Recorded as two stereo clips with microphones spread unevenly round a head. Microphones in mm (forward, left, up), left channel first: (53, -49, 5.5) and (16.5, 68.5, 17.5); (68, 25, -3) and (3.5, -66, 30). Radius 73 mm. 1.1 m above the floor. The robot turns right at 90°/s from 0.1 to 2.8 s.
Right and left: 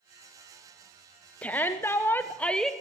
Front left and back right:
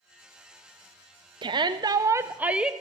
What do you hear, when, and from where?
1.4 s a shout: 120° right, 0.5 m; by 2.7 s straight ahead, 0.5 m